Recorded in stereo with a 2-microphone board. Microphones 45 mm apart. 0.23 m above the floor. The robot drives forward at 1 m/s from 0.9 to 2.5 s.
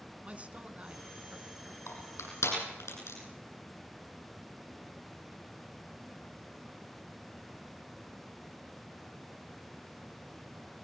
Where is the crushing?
80° left, 9.5 m.